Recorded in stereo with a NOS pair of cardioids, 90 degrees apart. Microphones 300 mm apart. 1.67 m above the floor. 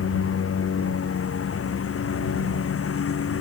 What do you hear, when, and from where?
0.0 s a lawn mower: 45° left